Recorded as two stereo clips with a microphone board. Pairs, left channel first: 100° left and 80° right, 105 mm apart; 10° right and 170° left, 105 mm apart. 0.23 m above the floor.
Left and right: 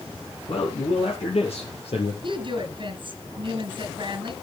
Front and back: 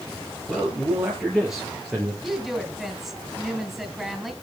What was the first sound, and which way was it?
A man speaking, 75° left.